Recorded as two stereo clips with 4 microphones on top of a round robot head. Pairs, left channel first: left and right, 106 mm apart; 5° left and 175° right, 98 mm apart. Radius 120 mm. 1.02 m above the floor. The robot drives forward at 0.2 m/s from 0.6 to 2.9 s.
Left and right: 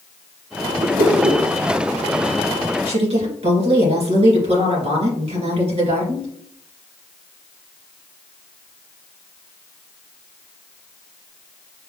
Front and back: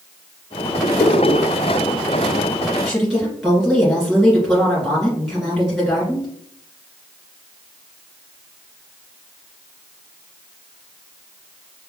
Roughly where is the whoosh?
Ahead right.